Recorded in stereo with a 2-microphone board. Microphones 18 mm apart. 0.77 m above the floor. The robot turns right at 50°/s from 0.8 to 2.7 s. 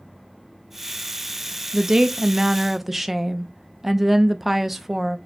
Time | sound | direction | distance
1.7 | a woman speaking | 70° right | 0.5 m